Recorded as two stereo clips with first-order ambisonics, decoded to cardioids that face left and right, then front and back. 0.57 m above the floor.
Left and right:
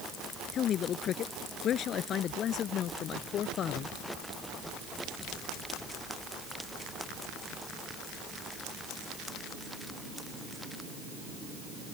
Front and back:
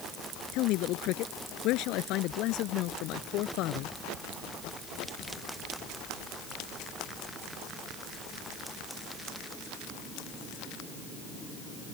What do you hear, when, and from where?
0.5 s a man speaking: 35° left